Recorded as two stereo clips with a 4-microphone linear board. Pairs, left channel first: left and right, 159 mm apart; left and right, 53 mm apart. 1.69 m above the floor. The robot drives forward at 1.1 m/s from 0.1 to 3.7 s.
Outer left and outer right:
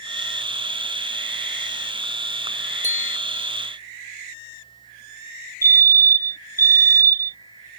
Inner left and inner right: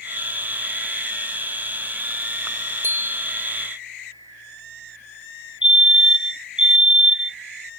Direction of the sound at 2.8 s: 50° right (ahead or behind).